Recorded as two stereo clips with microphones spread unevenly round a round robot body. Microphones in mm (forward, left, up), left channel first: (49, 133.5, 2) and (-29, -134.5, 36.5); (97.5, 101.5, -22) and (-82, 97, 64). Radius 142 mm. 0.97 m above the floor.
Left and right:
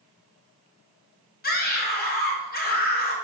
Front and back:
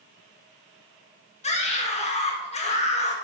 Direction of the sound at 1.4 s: 25° left.